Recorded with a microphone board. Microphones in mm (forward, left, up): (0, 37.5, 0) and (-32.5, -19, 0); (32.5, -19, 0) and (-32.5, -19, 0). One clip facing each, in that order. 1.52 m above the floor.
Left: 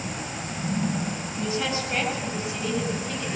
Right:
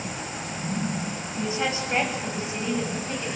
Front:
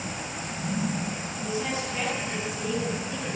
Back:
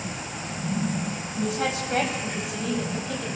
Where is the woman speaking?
170° left, 10 m; by 3.3 s straight behind, 10.5 m.